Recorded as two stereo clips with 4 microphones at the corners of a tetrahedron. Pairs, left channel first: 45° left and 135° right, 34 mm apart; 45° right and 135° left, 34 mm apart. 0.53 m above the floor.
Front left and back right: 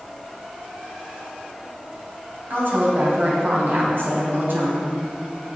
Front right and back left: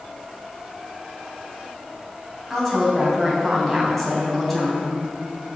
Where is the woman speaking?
130° right, 3 m.